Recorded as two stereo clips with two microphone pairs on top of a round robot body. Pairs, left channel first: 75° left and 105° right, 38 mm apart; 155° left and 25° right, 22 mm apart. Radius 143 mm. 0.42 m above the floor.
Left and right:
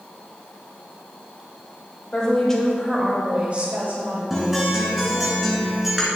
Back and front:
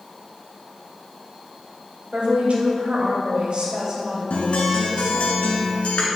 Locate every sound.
2.1 s a woman speaking: 10° left, 2.5 m; by 5.3 s 100° right, 4 m
4.3 s a guitar: 170° left, 1.6 m